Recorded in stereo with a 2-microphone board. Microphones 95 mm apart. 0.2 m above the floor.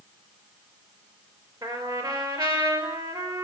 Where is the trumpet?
45° right (ahead or behind), 3 m.